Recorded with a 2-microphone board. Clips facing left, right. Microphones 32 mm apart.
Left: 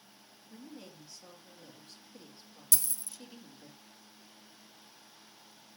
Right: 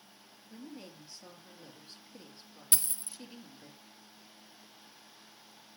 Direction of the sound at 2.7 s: 40° right (ahead or behind).